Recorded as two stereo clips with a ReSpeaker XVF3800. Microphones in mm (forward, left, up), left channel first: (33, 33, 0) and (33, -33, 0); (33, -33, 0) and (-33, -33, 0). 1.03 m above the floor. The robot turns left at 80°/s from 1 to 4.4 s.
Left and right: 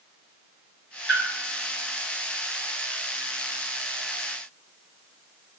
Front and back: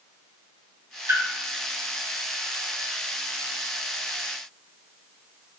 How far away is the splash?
About 1.4 m.